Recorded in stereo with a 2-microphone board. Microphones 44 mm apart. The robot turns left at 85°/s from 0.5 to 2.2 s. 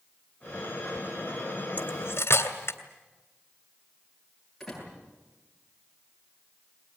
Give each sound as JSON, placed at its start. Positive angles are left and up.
{"t": 1.8, "sound": "cutlery clinking", "side_deg": 35, "distance_m": 2.0}
{"t": 4.6, "sound": "a door slam", "side_deg": 5, "distance_m": 10.0}